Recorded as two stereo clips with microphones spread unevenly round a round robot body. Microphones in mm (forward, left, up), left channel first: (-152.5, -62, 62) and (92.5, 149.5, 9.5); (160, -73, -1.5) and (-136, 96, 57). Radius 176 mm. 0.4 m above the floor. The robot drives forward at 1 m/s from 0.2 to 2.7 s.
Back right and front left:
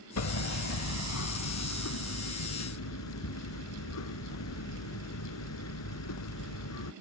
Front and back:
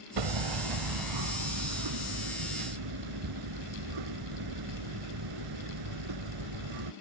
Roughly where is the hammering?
Behind.